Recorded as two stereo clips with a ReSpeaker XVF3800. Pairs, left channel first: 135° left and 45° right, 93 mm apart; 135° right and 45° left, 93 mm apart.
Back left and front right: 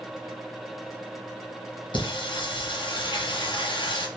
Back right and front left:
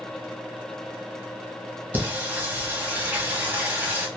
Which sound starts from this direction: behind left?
Singing, at 1.9 s.